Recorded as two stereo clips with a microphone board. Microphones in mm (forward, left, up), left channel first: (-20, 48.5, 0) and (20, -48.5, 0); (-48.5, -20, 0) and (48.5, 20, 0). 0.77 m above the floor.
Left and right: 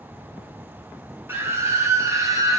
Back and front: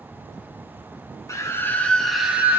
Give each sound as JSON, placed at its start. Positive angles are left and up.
{"t": 1.3, "sound": "a scream", "azimuth_deg": -120, "distance_m": 1.1}